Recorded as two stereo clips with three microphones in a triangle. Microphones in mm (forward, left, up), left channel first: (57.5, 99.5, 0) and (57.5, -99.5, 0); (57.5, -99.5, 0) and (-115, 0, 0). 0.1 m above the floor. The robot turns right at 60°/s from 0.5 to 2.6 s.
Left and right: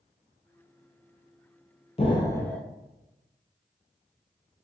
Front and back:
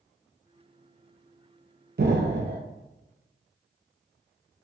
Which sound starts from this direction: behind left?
An explosion, at 2.0 s.